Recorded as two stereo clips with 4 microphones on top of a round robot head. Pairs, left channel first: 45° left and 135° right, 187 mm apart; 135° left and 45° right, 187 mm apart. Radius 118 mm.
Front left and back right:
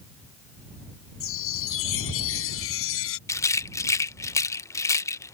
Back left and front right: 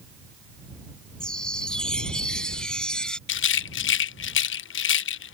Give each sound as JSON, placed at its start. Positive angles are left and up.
{"t": 1.2, "sound": "a chime", "azimuth_deg": 50}
{"t": 3.3, "sound": "a rattle", "azimuth_deg": 120}